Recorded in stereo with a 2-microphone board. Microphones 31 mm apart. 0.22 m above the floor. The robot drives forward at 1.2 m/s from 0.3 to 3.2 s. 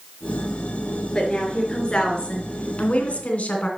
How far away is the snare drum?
I don't hear a snare drum.